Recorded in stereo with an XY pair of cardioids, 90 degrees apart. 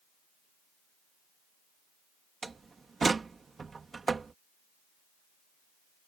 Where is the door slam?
35° right.